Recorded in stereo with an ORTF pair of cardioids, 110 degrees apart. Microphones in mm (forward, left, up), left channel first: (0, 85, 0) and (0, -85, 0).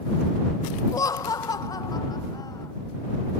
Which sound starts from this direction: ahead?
Laughter, at 0.9 s.